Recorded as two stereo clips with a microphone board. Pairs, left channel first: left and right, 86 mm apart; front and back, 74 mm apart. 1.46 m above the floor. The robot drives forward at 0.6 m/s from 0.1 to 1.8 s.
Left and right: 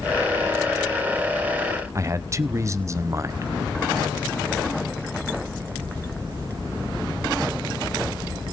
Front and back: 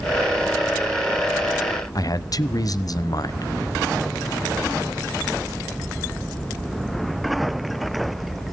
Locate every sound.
1.9 s a man speaking: 35° right, 0.7 m